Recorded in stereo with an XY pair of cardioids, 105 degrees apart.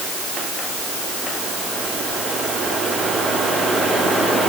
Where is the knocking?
I don't hear knocking.